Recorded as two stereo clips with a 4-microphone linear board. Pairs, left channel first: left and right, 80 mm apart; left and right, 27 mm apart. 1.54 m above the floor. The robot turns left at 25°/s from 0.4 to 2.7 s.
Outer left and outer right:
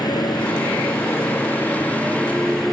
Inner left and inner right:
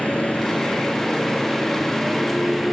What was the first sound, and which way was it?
A motorcycle, 55° left.